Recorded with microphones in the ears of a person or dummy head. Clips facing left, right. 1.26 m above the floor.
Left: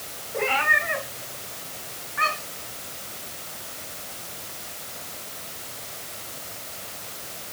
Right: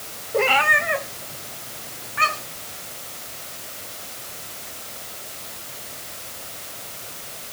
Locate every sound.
0.3 s a cat meowing: 60° right (ahead or behind), 1.9 m; by 2.6 s 45° right (ahead or behind), 5 m